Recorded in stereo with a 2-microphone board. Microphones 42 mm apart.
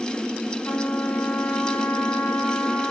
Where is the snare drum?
No snare drum in this recording.